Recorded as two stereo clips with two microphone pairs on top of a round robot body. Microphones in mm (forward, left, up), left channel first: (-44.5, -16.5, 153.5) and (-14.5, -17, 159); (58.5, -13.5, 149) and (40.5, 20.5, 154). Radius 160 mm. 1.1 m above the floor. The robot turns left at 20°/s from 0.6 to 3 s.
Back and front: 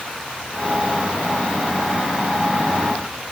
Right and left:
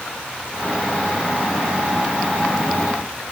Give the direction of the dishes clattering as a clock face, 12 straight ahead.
No dishes clattering in this recording.